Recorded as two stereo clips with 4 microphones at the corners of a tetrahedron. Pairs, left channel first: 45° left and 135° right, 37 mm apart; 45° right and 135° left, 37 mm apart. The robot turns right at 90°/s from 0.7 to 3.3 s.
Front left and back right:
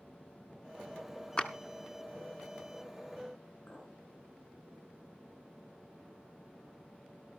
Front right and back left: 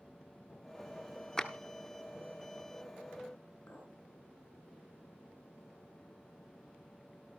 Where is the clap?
15° left, 0.9 m; by 1.5 s 25° left, 0.9 m.